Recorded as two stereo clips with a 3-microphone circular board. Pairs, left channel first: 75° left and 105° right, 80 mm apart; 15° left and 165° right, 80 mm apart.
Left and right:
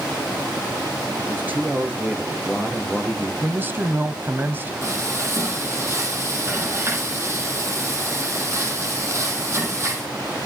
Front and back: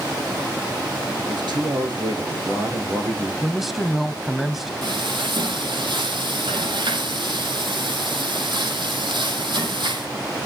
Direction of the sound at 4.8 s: 160° right.